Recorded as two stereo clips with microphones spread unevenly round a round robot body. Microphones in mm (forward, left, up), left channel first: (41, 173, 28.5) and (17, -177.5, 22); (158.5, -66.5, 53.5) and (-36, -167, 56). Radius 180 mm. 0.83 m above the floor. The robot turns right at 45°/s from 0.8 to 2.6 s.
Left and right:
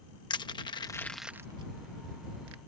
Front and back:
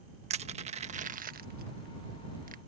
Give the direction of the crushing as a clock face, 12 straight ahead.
7 o'clock.